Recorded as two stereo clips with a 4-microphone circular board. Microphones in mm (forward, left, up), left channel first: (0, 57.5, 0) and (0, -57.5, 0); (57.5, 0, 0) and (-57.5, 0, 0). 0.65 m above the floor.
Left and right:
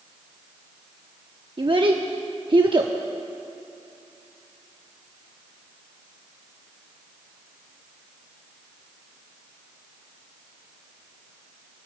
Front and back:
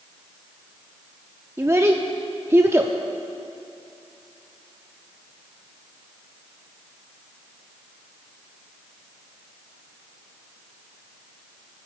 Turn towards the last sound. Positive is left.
turn(degrees=-120)